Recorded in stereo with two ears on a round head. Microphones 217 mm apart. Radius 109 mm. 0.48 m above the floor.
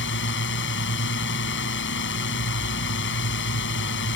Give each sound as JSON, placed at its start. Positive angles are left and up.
{"t": 0.0, "sound": "a drone", "side_deg": 55}